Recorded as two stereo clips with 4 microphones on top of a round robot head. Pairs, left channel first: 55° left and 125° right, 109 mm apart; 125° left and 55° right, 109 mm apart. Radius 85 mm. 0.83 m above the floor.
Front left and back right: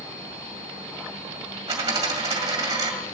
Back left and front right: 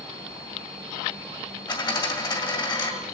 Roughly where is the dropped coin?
Behind.